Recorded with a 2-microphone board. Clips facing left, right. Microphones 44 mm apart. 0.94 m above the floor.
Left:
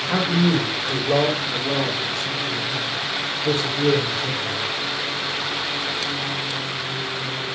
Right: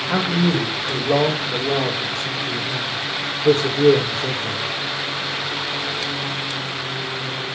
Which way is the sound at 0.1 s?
5° right (ahead or behind).